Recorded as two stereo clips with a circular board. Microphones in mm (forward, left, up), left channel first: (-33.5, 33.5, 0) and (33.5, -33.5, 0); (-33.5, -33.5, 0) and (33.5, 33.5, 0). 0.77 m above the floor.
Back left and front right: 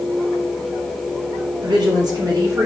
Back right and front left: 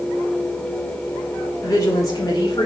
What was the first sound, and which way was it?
A woman speaking, 80° right.